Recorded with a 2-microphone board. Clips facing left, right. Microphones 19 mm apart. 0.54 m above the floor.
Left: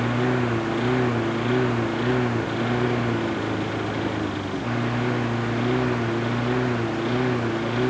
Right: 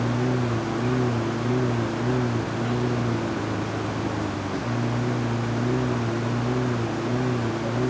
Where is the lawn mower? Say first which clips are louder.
Left 2 dB; 75° left (ahead or behind); by 7.9 s 60° left (ahead or behind).